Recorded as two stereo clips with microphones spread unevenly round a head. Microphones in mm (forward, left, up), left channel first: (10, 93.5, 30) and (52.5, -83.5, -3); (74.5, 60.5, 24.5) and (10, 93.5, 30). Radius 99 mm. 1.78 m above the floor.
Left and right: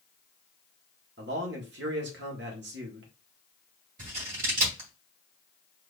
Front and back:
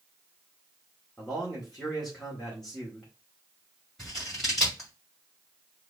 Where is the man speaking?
115° right, 1.6 m.